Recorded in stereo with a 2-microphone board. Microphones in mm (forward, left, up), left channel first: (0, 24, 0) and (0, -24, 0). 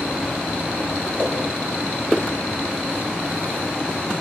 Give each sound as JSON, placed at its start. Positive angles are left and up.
{"t": 1.2, "sound": "a whoosh", "side_deg": -15, "distance_m": 9.0}